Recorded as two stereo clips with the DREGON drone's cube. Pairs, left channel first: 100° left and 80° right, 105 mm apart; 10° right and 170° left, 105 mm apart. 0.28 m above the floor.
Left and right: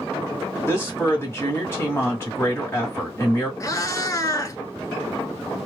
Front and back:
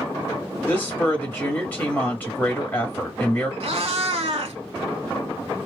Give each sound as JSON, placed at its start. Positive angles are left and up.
{"t": 0.7, "sound": "a woman speaking", "azimuth_deg": 50, "distance_m": 1.6}
{"t": 3.6, "sound": "a cat meowing", "azimuth_deg": 155, "distance_m": 0.7}